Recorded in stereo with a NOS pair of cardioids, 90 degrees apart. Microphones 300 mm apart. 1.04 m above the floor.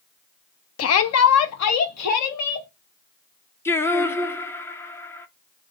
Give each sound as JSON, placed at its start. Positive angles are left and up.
{"t": 0.8, "sound": "a shout", "azimuth_deg": 55, "distance_m": 0.6}
{"t": 3.6, "sound": "singing", "azimuth_deg": 10, "distance_m": 0.5}